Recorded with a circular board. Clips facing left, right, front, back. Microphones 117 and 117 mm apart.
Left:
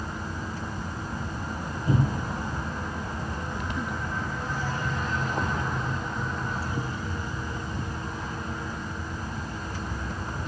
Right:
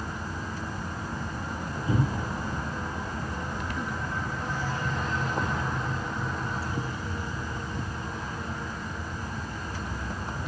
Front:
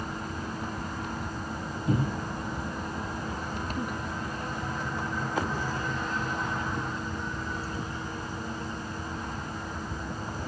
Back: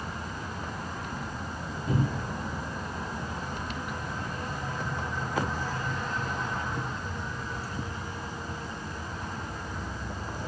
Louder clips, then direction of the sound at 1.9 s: Left 2 dB, front 1 dB; 80° left.